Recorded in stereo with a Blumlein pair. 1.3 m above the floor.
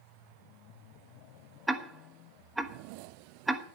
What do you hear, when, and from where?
1.7 s ticking: 5° right, 1.0 m